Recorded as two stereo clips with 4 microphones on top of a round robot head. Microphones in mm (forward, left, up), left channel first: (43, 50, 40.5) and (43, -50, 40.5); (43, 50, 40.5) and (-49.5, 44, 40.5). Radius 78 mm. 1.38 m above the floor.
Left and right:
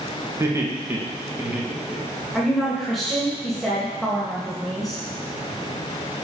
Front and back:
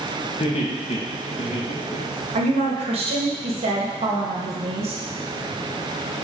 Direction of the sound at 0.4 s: 30° right.